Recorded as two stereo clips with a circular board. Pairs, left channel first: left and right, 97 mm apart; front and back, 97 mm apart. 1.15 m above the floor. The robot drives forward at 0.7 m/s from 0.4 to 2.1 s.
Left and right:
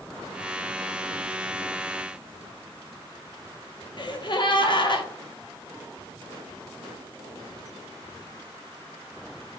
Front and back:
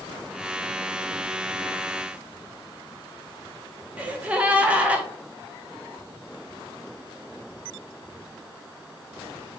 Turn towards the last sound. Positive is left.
turn(degrees=105)